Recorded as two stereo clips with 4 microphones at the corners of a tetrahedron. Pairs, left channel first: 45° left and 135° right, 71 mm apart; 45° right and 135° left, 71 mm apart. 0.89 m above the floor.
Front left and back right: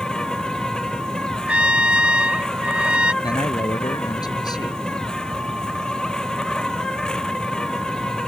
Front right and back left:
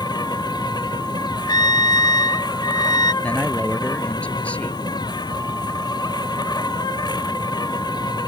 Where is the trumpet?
60° right.